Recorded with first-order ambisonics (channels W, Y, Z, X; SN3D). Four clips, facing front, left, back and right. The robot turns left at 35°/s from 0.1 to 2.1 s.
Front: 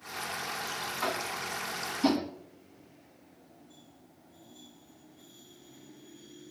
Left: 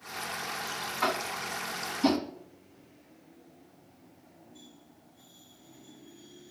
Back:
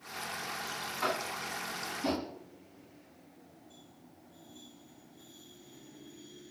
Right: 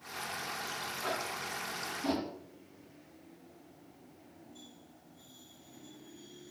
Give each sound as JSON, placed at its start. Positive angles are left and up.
{"t": 1.0, "sound": "tapping", "azimuth_deg": 85, "distance_m": 5.0}